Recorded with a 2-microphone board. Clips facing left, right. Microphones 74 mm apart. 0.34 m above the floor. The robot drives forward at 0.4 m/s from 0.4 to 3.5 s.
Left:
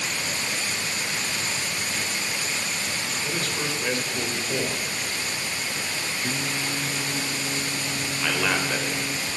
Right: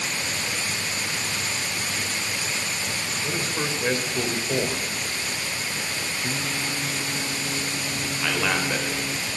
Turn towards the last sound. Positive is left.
turn(degrees=0)  # may be behind; listen again after turning